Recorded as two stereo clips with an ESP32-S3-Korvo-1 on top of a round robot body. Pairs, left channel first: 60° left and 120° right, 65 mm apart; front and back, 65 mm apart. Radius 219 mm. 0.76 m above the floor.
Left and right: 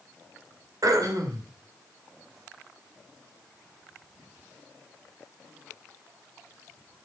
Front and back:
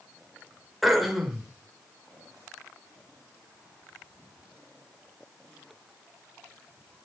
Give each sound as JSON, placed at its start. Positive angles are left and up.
{"t": 0.8, "sound": "throat clearing", "azimuth_deg": -90, "distance_m": 2.5}